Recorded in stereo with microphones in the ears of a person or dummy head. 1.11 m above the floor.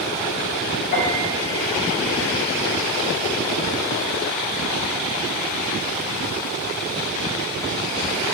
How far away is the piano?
About 3.5 m.